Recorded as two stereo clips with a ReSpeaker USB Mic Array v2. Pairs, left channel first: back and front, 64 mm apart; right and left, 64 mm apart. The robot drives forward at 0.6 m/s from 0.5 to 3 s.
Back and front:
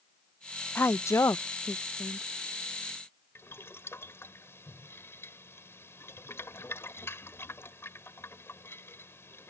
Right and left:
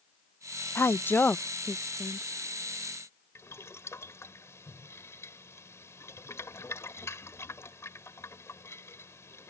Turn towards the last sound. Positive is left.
turn(degrees=-135)